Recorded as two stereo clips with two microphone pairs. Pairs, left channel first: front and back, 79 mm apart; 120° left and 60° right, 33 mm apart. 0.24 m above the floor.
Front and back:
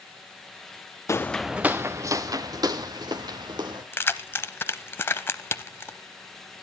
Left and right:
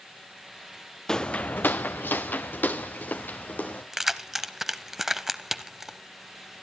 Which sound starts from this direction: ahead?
Keys jangling, at 3.9 s.